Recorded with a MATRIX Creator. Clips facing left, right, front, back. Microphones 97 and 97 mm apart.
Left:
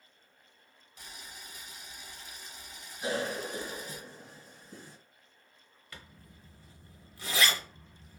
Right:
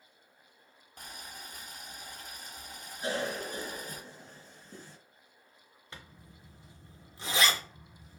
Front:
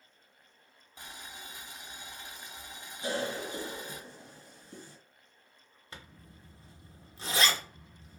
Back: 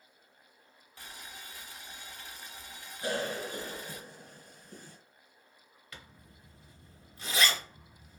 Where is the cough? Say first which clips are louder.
Left 1 dB, even; 165° left, 1.9 m.